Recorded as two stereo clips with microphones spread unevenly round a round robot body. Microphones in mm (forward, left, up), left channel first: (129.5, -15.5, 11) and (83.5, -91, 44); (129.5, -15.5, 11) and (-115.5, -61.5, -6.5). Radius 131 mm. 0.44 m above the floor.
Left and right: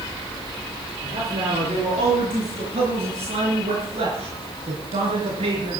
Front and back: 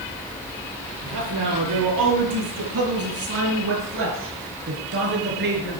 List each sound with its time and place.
1.0 s a man speaking: 155° right, 7 m; by 5.8 s 120° right, 6 m